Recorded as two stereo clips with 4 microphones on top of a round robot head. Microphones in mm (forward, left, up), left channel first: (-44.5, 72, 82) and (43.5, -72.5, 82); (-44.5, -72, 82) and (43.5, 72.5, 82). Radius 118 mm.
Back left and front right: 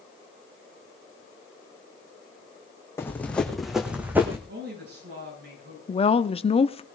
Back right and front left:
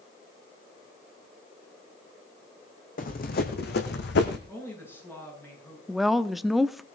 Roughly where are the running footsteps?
Behind.